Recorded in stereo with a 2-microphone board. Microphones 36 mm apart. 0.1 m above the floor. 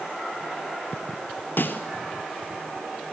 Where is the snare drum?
60° left (ahead or behind), 0.5 m.